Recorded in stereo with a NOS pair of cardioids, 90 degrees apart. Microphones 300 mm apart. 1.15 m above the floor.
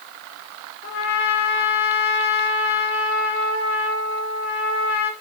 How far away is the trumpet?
About 1.7 m.